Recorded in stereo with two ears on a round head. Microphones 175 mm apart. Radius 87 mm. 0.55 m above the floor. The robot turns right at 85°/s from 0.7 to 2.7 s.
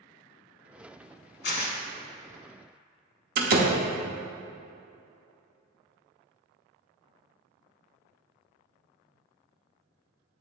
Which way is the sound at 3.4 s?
50° right (ahead or behind).